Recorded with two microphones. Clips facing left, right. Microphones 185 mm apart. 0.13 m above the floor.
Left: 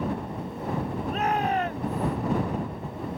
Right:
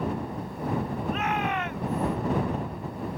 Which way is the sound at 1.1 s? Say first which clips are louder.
Left 4 dB; 35° left (ahead or behind).